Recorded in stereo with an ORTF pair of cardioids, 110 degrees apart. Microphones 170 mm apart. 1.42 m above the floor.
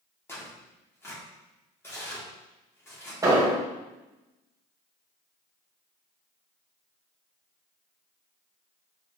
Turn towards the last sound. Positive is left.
turn(degrees=-20)